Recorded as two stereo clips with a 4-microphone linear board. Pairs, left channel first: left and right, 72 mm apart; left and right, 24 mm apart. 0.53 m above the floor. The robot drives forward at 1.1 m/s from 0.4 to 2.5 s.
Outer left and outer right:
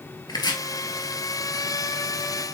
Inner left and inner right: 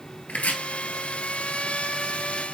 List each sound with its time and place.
0.3 s chopping: 75° left (ahead or behind), 1.7 m; by 0.6 s 80° left, 1.7 m